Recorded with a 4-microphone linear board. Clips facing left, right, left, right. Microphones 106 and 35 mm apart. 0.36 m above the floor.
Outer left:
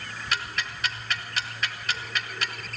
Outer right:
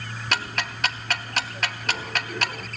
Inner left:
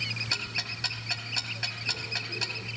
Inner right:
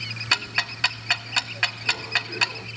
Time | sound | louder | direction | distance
0.3 | ticking | outer right 4 dB, inner right 8 dB | 70° right (ahead or behind) | 0.7 m